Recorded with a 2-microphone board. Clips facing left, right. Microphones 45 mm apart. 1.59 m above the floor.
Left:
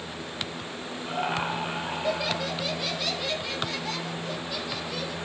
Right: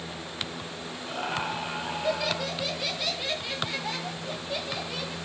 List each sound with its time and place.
1.1 s laughter: 15° left (ahead or behind), 4.5 m; by 5.2 s 30° right (ahead or behind), 4.5 m